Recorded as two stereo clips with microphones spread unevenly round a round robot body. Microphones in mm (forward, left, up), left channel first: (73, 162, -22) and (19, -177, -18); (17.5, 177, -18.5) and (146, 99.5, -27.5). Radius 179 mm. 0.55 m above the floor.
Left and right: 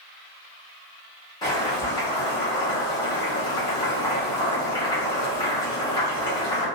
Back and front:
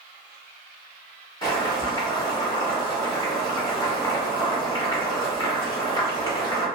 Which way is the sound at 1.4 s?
140° left.